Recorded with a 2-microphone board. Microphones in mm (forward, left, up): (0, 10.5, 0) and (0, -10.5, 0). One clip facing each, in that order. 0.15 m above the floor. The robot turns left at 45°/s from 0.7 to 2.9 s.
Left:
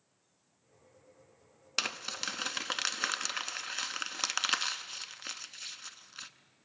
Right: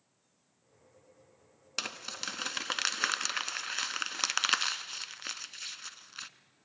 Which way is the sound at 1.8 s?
20° left (ahead or behind).